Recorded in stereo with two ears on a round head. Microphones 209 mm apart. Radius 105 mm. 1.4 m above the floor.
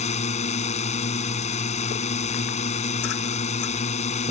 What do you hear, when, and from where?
0.0 s a drone: 30° left (ahead or behind)